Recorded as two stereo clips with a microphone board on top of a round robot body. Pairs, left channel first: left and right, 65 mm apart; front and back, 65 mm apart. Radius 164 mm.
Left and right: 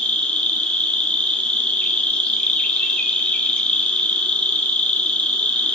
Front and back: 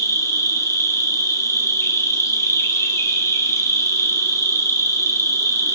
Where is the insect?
20° left, 1.1 m.